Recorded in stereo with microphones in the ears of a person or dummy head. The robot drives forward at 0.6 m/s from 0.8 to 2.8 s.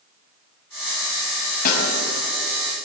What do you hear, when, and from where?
1.6 s a snare drum: 50° left (ahead or behind), 5 m